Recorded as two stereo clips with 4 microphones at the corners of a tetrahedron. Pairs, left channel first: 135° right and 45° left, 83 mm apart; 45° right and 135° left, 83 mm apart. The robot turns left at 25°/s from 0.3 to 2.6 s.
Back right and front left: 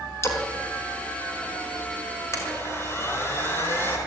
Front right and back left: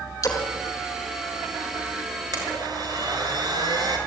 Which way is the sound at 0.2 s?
85° right.